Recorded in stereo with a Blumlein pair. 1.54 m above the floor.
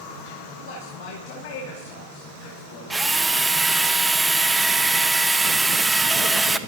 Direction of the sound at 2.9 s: 10° right.